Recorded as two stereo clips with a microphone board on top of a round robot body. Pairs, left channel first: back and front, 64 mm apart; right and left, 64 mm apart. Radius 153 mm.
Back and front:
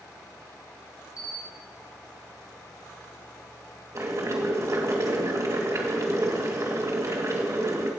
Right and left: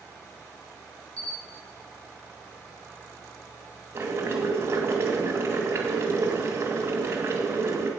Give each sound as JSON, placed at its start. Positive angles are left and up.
{"t": 1.2, "sound": "a camera shutter", "azimuth_deg": -160, "distance_m": 3.0}
{"t": 4.0, "sound": "boiling", "azimuth_deg": 40, "distance_m": 2.5}